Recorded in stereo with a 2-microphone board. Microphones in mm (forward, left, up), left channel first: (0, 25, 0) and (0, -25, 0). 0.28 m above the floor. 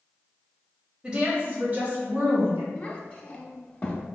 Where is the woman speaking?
15° right (ahead or behind), 0.9 m; by 2.6 s 40° right (ahead or behind), 1.7 m.